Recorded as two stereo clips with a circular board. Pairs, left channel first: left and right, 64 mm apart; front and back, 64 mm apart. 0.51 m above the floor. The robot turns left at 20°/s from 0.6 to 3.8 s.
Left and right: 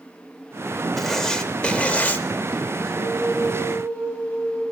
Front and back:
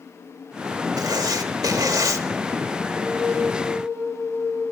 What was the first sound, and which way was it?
Writing, 175° left.